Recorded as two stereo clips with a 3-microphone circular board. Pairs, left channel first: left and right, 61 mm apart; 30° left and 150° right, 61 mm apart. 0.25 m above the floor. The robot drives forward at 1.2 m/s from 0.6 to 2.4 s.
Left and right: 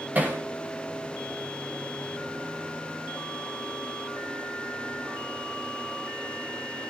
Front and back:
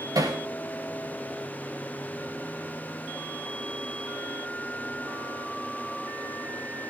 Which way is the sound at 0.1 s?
150° right.